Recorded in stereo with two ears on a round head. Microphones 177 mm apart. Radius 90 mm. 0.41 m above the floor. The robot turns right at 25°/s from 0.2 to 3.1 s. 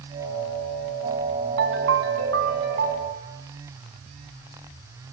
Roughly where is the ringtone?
Right.